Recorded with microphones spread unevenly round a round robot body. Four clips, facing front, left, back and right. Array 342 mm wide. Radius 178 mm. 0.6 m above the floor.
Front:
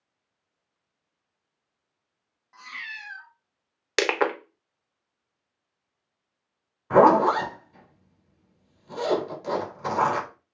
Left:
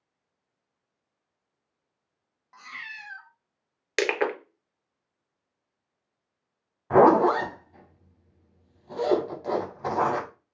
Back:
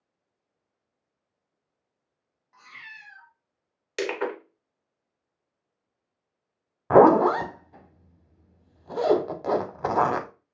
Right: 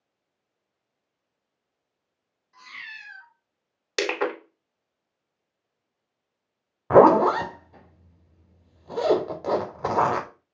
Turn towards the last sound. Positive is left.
turn(degrees=-120)